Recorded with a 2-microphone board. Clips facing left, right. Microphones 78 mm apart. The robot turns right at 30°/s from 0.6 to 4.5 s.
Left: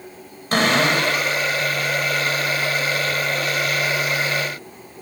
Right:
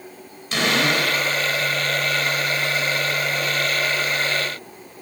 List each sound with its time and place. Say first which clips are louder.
0.5 s a cupboard door: left 3 dB; 45° left (ahead or behind), 4.5 m; by 1.3 s 25° left (ahead or behind), 4.5 m